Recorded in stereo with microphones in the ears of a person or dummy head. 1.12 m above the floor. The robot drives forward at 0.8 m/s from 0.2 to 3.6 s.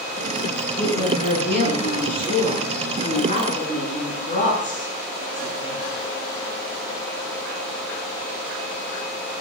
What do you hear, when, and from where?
0.8 s a woman speaking: 45° left (ahead or behind), 9.5 m; by 5.8 s 35° left (ahead or behind), 11 m